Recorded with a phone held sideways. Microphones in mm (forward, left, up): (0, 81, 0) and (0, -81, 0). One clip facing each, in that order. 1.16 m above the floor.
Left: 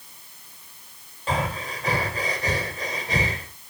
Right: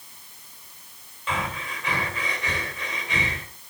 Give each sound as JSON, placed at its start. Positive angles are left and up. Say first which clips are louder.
{"t": 1.3, "sound": "breathing", "louder": "left 4 dB", "side_deg": 40, "distance_m": 3.0}